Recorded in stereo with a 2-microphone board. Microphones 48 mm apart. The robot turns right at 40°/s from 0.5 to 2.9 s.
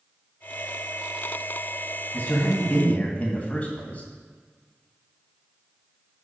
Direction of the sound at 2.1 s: 105° left.